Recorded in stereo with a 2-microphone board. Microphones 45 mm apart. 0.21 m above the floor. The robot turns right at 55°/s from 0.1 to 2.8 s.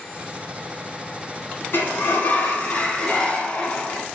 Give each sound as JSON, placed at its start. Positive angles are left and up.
{"t": 1.7, "sound": "a sliding door", "azimuth_deg": 85, "distance_m": 1.6}